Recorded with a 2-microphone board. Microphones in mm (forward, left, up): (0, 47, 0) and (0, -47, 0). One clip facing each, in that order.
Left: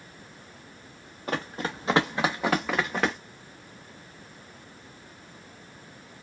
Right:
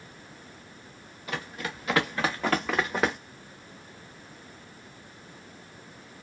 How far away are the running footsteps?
About 1.0 m.